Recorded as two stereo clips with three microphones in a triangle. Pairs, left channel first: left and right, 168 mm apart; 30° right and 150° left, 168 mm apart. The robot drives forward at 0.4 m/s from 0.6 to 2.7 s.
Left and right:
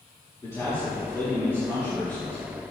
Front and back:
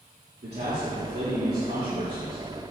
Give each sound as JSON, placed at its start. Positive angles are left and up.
{"t": 0.4, "sound": "a man speaking", "azimuth_deg": 165, "distance_m": 3.0}